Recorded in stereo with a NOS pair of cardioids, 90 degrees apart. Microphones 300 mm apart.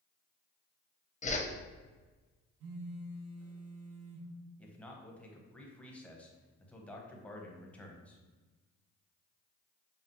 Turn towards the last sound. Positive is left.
turn(degrees=5)